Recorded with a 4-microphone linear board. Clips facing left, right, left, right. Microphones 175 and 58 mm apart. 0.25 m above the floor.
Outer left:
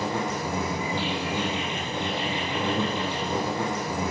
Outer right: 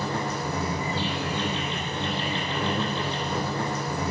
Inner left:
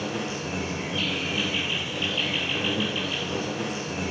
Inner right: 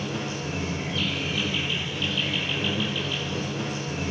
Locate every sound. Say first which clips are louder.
0.0 s an insect: outer left 1 dB, inner left 1 dB; 20° left (ahead or behind), 9.5 m